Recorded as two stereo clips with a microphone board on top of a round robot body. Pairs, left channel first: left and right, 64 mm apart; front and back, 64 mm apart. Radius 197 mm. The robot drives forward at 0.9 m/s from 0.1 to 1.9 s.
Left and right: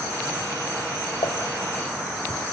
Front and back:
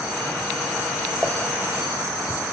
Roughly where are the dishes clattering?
Left.